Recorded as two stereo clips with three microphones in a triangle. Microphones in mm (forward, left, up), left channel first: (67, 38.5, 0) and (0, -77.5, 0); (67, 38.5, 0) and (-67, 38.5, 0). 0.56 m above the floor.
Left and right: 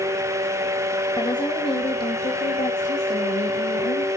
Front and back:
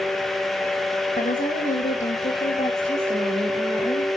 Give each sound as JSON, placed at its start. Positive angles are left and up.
{"t": 1.2, "sound": "a woman speaking", "azimuth_deg": 0, "distance_m": 2.0}